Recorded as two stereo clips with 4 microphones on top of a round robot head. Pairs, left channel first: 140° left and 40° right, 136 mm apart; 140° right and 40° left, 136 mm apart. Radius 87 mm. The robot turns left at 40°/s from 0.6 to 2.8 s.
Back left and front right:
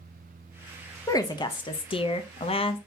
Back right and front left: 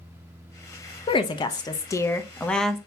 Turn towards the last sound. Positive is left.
turn(degrees=125)